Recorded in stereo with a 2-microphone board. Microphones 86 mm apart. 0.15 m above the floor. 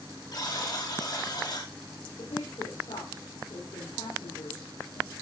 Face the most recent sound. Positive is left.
turn(degrees=80)